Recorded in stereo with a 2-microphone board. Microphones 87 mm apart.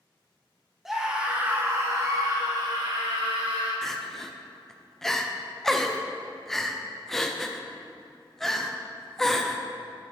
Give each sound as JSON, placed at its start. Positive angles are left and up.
{"t": 0.8, "sound": "a scream", "side_deg": -5, "distance_m": 1.8}
{"t": 3.8, "sound": "crying", "side_deg": 5, "distance_m": 0.5}